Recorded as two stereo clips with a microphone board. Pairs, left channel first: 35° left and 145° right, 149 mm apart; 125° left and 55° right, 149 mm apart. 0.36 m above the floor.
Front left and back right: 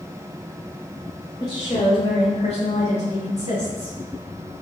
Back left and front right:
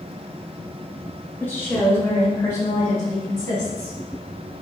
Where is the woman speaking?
60° left, 1.0 m.